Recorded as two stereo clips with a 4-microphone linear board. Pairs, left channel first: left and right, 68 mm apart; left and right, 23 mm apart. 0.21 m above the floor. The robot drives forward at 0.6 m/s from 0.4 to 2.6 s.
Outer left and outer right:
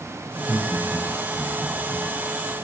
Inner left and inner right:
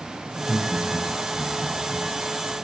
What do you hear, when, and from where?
0.3 s laughter: 30° right (ahead or behind), 5 m; by 2.0 s 25° right (ahead or behind), 6 m